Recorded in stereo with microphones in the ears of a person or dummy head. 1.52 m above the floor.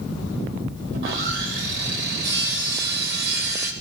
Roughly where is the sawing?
Right.